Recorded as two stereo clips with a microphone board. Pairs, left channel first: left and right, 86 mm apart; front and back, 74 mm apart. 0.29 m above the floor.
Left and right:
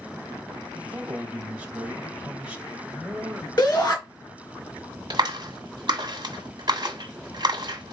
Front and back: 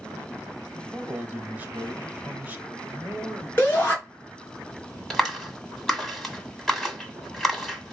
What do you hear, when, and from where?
0.7 s a man speaking: 145° right, 1.0 m
3.6 s a shout: 60° left, 2.5 m
5.1 s a clap: 90° right, 1.7 m